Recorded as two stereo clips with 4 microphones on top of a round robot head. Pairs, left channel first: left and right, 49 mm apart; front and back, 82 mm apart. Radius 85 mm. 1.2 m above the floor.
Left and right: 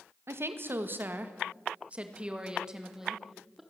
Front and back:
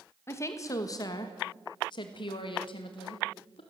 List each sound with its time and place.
0.3 s a woman speaking: 60° right, 2 m; by 3.6 s 5° right, 3 m